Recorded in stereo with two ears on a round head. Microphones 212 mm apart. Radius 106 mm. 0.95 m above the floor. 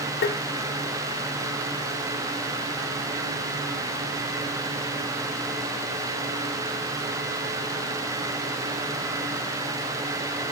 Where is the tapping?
45° left (ahead or behind), 1.0 m.